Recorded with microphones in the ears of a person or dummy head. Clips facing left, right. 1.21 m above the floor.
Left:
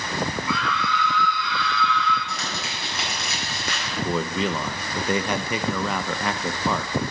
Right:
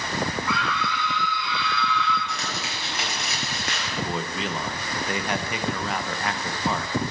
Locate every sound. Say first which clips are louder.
0.5 s a scream: left 1 dB; 45° right (ahead or behind), 1.4 m; by 2.2 s centre (ahead or behind), 2.5 m
2.3 s crumpling: even; 85° left, 6.5 m
4.0 s a man speaking: left 5 dB; 75° left (ahead or behind), 0.8 m